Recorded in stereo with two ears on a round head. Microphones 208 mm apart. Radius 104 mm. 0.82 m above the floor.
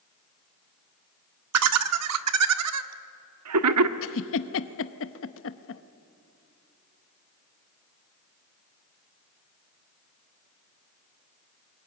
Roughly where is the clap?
No clap in this recording.